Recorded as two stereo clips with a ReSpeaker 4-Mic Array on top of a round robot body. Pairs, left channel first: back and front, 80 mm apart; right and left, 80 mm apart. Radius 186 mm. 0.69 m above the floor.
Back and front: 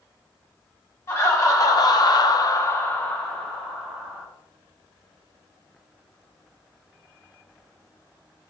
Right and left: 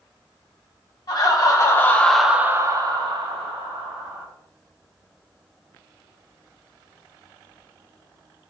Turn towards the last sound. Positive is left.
turn(degrees=90)